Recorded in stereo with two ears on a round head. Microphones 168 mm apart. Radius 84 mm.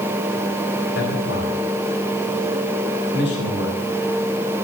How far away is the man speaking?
About 4 m.